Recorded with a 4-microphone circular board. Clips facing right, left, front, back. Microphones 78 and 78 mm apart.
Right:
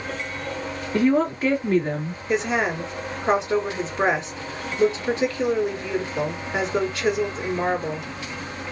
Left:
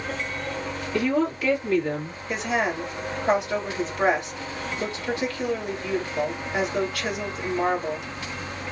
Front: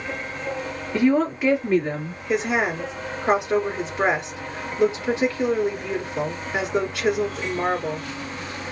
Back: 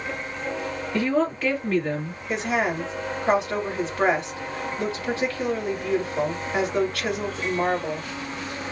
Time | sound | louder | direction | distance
0.9 | a woman speaking | right 4 dB, front 4 dB | 75° right | 1.4 m
2.3 | a woman speaking | right 3 dB, front 2 dB | 55° right | 1.7 m